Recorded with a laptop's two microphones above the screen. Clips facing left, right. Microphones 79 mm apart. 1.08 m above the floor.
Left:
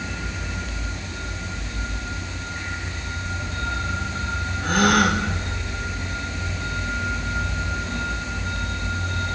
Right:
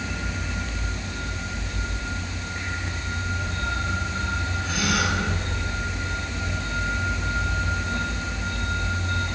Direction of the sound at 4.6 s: 50° left (ahead or behind).